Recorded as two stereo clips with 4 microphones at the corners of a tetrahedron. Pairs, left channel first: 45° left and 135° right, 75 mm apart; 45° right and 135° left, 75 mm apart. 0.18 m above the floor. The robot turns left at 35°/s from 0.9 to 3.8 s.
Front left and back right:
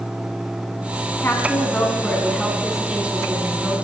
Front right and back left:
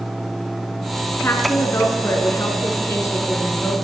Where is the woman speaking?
Straight ahead, 1.9 m; by 3.7 s 90° right, 1.9 m.